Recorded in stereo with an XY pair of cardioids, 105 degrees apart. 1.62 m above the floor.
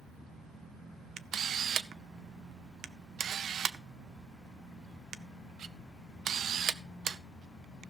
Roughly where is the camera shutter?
Ahead right.